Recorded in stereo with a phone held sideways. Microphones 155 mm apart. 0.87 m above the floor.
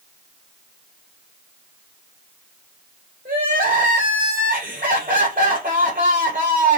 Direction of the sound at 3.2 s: 75° right (ahead or behind).